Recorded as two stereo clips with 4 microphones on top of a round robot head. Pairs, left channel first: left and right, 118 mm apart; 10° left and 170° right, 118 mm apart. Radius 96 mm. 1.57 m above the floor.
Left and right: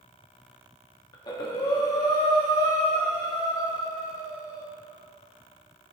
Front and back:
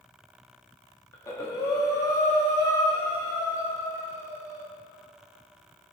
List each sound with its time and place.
1.1 s breathing: 60° left, 1.1 m